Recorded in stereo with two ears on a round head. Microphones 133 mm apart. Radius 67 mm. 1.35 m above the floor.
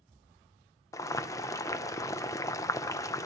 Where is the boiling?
20° left (ahead or behind), 0.6 m.